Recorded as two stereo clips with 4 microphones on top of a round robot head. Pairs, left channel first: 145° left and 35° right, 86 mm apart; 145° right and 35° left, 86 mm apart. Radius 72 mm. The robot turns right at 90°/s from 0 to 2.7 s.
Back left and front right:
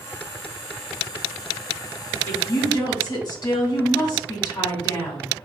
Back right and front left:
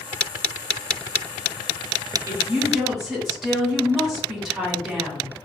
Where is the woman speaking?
85° left, 1.9 m; by 5.3 s 125° left, 1.9 m.